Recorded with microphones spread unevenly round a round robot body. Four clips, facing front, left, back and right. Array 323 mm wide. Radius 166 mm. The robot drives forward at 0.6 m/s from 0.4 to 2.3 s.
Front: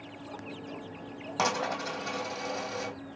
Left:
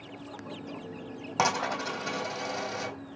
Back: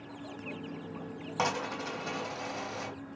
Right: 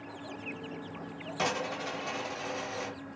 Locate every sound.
1.4 s a dropped coin: 85° left, 1.4 m; by 2.9 s 110° left, 1.5 m